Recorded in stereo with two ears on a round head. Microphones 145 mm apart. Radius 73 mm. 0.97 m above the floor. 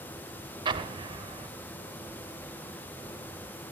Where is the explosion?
30° right (ahead or behind), 1.4 m.